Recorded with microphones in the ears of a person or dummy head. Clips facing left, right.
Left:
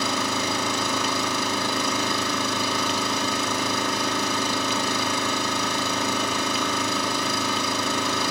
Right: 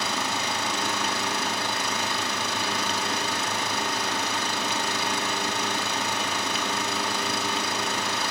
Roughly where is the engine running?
Left.